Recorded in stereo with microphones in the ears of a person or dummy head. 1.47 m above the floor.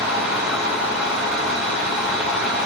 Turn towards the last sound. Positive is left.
turn(degrees=-10)  # may be behind; listen again after turning